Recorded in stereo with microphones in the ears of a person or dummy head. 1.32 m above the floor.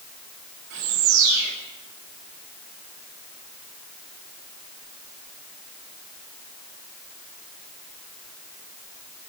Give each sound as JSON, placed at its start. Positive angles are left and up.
{"t": 0.7, "sound": "a bird", "side_deg": -75, "distance_m": 8.0}